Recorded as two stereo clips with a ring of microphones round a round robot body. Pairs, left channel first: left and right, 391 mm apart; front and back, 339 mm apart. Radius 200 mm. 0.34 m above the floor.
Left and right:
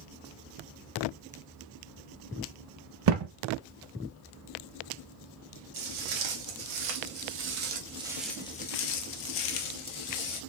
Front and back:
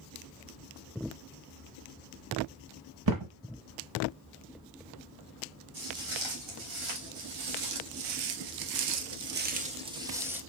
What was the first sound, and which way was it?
A thud, 135° right.